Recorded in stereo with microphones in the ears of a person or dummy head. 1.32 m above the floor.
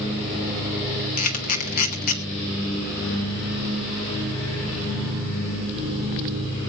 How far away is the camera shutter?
About 1.5 m.